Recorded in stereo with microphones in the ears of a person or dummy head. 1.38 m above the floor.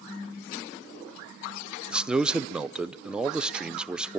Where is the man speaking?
10° right (ahead or behind), 0.7 m.